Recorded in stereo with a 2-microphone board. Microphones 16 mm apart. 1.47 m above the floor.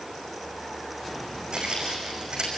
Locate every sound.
1.5 s footsteps: 50° right (ahead or behind), 5.5 m